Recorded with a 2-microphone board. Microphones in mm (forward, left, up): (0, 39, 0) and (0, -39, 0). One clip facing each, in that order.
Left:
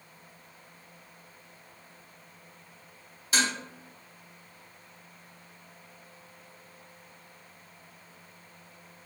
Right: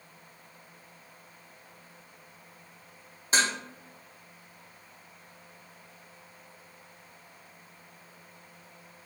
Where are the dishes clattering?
35° right (ahead or behind), 0.6 m.